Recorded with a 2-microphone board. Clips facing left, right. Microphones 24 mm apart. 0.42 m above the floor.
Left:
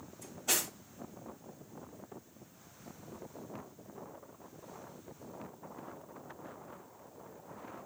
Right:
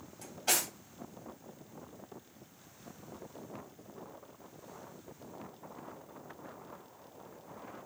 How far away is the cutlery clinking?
About 1.4 m.